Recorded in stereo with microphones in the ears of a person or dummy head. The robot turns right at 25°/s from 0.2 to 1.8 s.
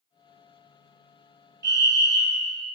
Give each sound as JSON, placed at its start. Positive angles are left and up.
{"t": 1.6, "sound": "a fire alarm", "side_deg": -20, "distance_m": 2.5}